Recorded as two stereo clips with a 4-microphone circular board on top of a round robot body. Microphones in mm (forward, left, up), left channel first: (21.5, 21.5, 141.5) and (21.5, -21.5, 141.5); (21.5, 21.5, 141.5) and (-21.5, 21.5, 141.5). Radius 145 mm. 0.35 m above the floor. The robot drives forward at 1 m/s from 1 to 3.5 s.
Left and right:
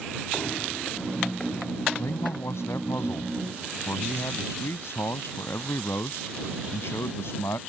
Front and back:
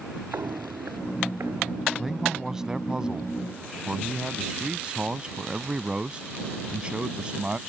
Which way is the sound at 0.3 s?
145° left.